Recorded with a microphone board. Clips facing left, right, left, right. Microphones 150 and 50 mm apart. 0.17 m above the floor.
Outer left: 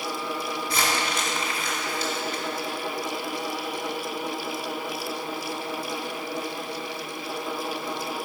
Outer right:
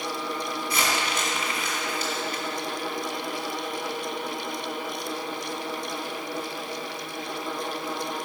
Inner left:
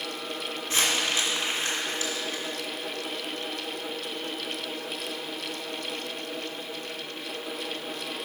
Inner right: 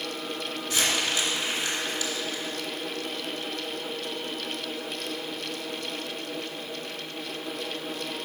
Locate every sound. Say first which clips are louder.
0.7 s crumpling: outer left 1 dB, inner left 1 dB; 30° left (ahead or behind), 1.9 m